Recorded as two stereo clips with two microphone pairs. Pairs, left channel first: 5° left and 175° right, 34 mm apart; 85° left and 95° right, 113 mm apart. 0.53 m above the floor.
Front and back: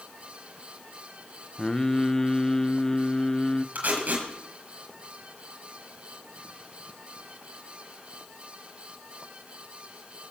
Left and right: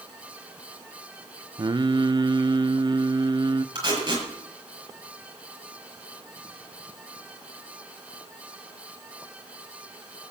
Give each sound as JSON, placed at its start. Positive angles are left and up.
{"t": 1.6, "sound": "singing", "azimuth_deg": -65, "distance_m": 0.5}
{"t": 3.8, "sound": "tape being pulled", "azimuth_deg": -145, "distance_m": 6.0}